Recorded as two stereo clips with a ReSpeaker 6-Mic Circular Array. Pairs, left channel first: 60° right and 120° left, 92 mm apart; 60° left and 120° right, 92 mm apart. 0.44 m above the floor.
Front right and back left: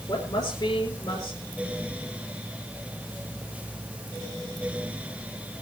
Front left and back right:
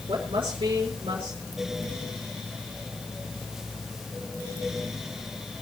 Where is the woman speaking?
100° right, 5.5 m.